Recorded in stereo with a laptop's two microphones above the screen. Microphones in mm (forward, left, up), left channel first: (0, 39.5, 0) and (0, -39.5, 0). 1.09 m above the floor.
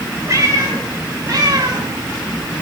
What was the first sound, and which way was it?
A cat meowing, 45° right (ahead or behind).